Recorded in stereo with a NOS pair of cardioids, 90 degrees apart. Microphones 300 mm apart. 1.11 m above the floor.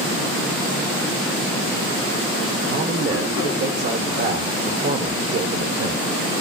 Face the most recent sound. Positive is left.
turn(degrees=-40)